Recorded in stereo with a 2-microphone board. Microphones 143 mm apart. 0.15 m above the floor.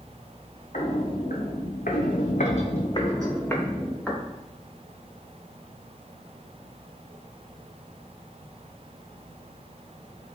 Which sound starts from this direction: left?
Footsteps, at 0.7 s.